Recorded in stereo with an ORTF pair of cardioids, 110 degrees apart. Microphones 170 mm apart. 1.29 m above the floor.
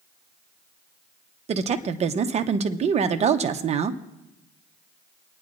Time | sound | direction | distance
1.5 | a woman speaking | 40° right | 0.9 m